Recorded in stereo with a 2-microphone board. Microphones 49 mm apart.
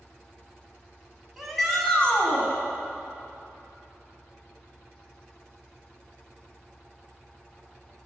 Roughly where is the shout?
Centre.